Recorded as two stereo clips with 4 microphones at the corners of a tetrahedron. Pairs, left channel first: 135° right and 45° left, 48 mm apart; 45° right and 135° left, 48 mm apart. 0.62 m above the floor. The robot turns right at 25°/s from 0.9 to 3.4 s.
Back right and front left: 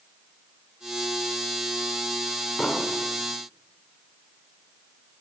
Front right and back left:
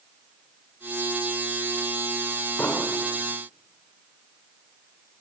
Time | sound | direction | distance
2.6 | an explosion | 70° right | 2.5 m